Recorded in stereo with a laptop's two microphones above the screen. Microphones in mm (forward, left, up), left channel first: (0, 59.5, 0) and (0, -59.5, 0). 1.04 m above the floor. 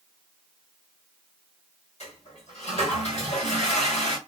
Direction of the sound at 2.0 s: 65° left (ahead or behind).